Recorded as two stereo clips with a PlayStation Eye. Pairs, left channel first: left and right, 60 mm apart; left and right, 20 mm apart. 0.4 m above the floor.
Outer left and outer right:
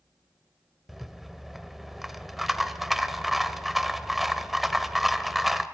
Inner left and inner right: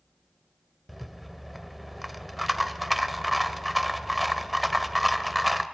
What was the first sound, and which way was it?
A rattle, 5° right (ahead or behind).